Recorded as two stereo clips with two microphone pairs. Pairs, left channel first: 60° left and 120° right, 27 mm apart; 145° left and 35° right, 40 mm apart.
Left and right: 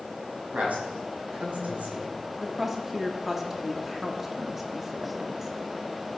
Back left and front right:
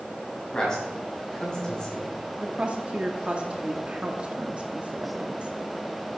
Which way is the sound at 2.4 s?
50° right.